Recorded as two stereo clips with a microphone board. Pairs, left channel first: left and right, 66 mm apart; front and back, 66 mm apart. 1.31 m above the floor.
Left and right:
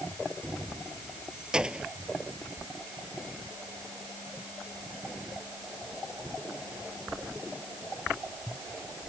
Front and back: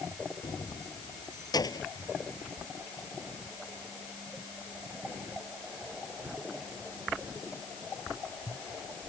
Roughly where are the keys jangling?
Ahead.